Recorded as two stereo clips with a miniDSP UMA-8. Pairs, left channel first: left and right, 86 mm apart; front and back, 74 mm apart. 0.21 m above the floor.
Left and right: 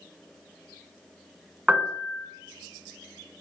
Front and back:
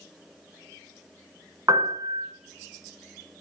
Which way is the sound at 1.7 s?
165° right.